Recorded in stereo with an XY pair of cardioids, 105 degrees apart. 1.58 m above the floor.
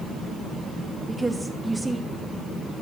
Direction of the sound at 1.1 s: 5° right.